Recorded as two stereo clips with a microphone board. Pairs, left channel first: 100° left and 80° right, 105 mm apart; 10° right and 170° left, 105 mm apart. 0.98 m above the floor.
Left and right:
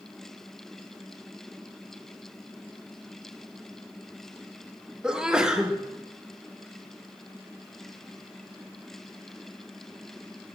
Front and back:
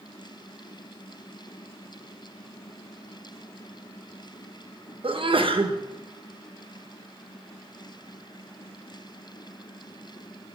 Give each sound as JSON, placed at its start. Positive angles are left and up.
{"t": 5.0, "sound": "a sneeze", "azimuth_deg": -160, "distance_m": 0.9}